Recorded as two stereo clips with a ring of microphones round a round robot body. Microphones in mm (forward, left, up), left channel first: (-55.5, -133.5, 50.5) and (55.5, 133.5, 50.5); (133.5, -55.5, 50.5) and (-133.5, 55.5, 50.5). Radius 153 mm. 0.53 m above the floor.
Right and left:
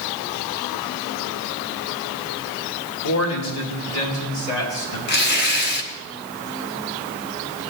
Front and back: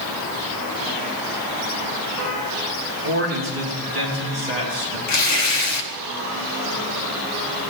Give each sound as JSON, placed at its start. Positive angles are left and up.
{"t": 3.0, "sound": "a man speaking", "azimuth_deg": -150, "distance_m": 3.5}
{"t": 5.1, "sound": "tearing paper", "azimuth_deg": -55, "distance_m": 1.4}